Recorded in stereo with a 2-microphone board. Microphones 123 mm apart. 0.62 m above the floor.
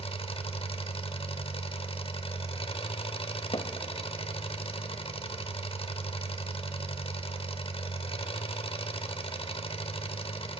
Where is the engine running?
50° left (ahead or behind), 0.7 m.